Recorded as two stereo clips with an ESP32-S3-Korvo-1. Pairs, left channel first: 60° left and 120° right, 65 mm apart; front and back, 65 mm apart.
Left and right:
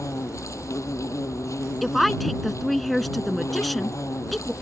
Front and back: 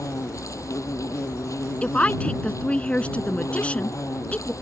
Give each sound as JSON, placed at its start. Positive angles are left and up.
{"t": 0.0, "sound": "an insect", "azimuth_deg": 30}
{"t": 1.8, "sound": "a woman speaking", "azimuth_deg": -25}